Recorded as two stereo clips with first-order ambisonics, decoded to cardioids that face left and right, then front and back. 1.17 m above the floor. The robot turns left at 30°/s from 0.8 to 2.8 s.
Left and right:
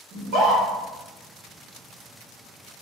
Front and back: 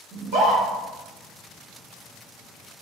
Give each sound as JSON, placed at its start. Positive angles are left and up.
{"t": 0.1, "sound": "a scream", "azimuth_deg": -130, "distance_m": 1.8}